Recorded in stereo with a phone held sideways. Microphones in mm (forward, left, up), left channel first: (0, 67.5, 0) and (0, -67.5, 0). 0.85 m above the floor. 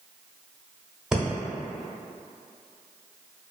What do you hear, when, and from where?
1.1 s breathing: 5° right (ahead or behind), 0.8 m